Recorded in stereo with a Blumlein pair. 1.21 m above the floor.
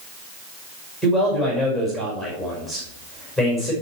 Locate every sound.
1.0 s a man speaking: 5° right, 5 m